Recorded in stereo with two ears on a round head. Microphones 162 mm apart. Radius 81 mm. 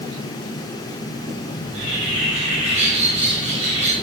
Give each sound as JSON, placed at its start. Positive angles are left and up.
{"t": 1.6, "sound": "a bird", "side_deg": -40, "distance_m": 4.0}